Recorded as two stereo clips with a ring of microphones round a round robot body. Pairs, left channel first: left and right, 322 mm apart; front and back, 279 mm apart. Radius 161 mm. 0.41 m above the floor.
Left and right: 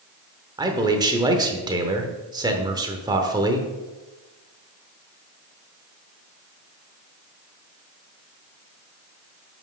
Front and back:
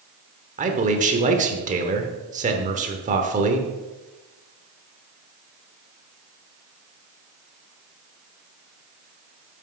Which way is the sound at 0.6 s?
155° right.